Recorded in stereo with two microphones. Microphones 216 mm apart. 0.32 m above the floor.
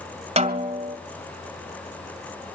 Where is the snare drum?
30° right (ahead or behind), 1.8 m.